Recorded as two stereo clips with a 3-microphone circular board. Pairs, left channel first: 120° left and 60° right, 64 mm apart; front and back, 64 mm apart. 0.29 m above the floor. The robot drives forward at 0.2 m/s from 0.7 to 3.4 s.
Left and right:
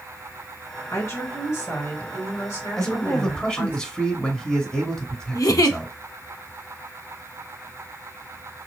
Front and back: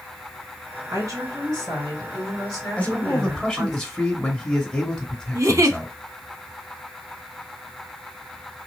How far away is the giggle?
About 0.5 m.